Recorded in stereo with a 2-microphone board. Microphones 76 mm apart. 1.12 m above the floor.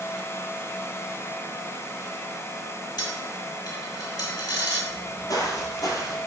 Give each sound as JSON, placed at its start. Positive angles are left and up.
{"t": 3.0, "sound": "a dropped coin", "side_deg": 65, "distance_m": 2.0}
{"t": 4.9, "sound": "footsteps", "side_deg": 55, "distance_m": 1.8}